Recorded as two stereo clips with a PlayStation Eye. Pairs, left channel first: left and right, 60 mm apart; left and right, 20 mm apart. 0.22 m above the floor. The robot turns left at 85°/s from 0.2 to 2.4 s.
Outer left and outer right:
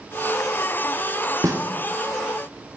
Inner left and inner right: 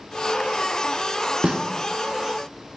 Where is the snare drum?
65° right (ahead or behind), 1.3 m.